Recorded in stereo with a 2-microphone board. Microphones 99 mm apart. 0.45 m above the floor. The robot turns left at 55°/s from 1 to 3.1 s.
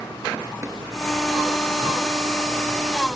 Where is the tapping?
30° right (ahead or behind), 3.5 m.